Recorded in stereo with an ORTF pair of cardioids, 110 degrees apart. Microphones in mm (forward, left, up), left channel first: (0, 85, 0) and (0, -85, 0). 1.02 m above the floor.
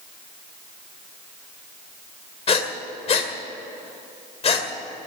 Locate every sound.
2.5 s breathing: 40° left, 1.9 m